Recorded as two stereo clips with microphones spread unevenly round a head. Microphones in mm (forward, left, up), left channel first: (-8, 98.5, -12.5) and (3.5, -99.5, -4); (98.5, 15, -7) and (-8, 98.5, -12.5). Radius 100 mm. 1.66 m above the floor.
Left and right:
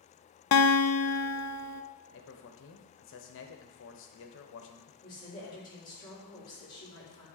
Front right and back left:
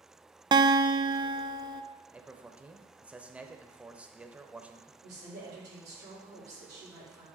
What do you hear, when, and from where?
0.5 s a guitar: 80° left, 0.5 m
2.1 s a man speaking: 60° left, 0.9 m
5.0 s a woman speaking: 165° left, 3.5 m